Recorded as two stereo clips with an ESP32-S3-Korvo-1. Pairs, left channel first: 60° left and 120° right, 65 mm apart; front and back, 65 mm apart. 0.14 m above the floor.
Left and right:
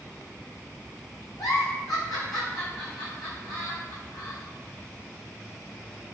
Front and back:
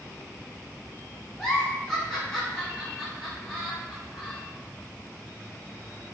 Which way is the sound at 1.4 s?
80° left.